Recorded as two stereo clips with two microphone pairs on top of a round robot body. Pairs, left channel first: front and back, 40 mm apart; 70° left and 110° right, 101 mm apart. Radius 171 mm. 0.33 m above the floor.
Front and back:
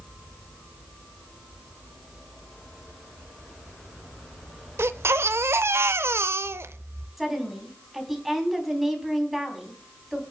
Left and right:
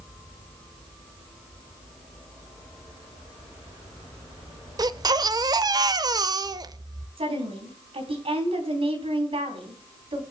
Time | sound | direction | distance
4.8 | a baby crying | 160° right | 0.6 m
7.2 | a woman speaking | 90° right | 4 m